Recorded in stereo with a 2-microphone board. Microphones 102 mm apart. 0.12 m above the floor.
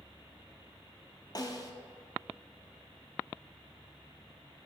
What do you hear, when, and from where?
1.4 s a snare drum: 40° left (ahead or behind), 0.8 m